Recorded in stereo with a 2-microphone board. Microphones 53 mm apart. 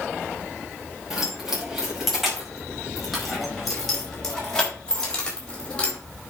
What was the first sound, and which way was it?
Keys jangling, 10° right (ahead or behind).